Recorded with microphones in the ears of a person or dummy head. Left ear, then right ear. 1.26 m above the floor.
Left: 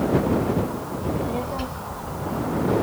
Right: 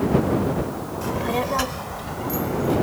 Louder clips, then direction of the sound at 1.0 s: Right 4 dB; 50° right (ahead or behind).